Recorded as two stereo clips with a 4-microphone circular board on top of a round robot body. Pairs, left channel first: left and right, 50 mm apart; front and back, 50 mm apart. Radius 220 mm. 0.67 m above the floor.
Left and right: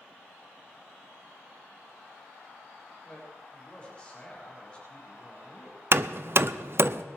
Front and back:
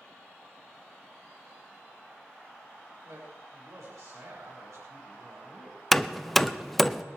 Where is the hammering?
85° right, 0.8 m.